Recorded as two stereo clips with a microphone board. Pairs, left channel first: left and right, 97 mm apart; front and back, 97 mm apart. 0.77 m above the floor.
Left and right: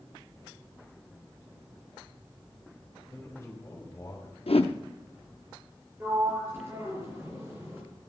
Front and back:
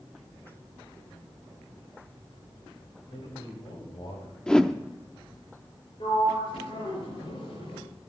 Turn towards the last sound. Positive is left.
turn(degrees=-25)